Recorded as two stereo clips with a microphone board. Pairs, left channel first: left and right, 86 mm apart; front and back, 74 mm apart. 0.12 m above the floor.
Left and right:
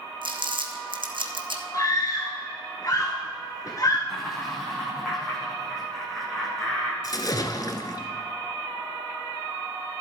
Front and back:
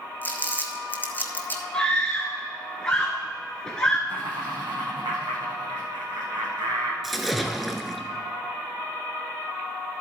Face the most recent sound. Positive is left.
turn(degrees=90)